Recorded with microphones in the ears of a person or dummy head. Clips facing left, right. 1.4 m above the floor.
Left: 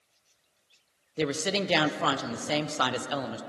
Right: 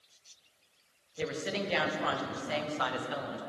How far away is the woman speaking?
About 0.6 m.